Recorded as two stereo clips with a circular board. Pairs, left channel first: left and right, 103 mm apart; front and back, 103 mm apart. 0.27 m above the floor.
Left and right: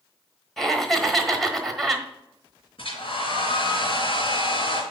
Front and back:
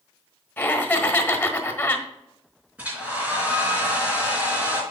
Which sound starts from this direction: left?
A hair dryer, at 2.8 s.